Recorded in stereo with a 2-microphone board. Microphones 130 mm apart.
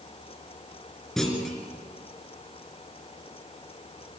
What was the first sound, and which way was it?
A clunk, 5° left (ahead or behind).